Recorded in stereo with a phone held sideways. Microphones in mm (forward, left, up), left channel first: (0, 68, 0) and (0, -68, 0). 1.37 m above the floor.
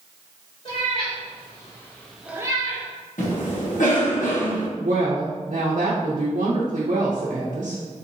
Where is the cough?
85° left, 1.3 m.